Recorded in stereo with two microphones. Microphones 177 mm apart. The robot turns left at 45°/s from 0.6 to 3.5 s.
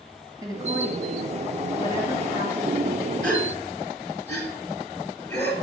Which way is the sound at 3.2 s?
10° left (ahead or behind).